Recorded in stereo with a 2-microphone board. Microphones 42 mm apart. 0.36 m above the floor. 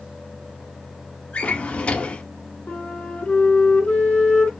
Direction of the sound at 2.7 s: 25° left (ahead or behind).